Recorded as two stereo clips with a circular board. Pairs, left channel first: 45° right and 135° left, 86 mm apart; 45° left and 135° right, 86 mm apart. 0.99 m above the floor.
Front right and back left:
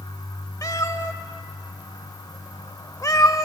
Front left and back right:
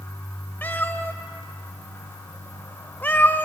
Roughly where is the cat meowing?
Ahead.